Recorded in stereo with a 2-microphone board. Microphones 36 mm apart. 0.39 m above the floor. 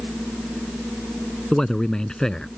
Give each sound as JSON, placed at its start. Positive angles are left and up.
{"t": 1.5, "sound": "a man speaking", "side_deg": 20}